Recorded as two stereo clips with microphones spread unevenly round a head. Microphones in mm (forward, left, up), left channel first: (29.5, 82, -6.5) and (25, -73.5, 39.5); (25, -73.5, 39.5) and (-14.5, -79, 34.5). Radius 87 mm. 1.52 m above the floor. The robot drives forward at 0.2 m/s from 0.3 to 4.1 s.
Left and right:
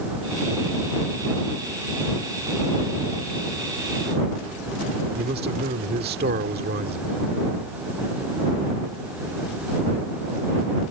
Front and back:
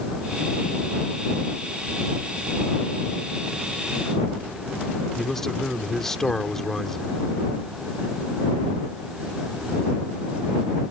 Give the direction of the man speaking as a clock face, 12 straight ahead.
2 o'clock.